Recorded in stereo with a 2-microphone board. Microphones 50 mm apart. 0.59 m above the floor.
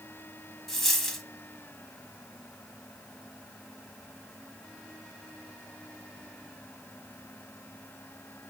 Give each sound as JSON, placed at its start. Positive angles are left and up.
{"t": 0.7, "sound": "a dropped coin", "side_deg": 5, "distance_m": 0.9}